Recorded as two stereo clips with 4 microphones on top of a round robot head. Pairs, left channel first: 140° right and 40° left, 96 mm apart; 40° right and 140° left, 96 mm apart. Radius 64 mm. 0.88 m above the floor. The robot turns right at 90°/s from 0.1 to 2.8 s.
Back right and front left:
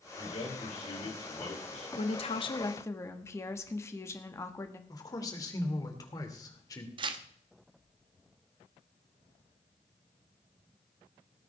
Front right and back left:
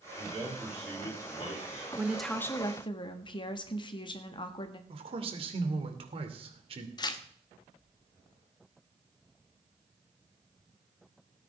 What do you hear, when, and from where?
0.2 s a man speaking: 170° left, 8.5 m; by 1.9 s 40° right, 8.5 m
2.0 s a woman speaking: 155° right, 1.5 m; by 4.8 s 75° right, 1.5 m
4.9 s a man speaking: 165° left, 2.5 m
7.0 s tearing paper: 5° left, 1.1 m